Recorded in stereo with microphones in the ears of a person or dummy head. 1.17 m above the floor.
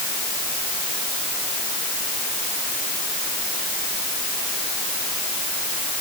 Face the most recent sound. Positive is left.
No sound to turn to.